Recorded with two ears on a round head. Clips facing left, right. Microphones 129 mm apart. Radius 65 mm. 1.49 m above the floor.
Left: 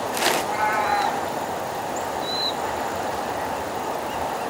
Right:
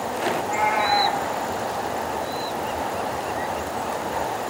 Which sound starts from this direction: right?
A cat meowing, at 0.3 s.